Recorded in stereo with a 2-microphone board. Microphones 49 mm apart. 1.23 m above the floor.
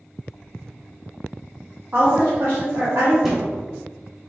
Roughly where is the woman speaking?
Right.